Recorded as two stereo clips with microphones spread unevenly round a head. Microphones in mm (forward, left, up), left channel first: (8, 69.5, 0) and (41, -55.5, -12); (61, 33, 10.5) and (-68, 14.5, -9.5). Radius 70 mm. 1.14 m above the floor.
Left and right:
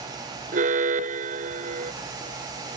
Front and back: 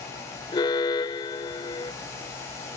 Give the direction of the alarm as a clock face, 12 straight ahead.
2 o'clock.